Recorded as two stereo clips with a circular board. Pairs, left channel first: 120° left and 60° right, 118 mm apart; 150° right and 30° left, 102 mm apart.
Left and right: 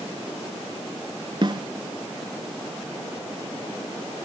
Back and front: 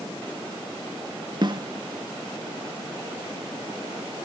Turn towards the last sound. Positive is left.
turn(degrees=-10)